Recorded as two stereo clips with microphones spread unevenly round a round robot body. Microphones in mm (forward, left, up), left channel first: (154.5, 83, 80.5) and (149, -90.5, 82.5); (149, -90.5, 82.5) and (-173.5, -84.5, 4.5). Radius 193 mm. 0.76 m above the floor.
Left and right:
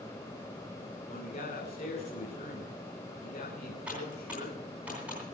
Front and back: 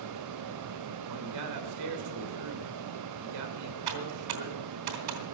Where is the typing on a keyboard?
Straight behind, 3.5 m.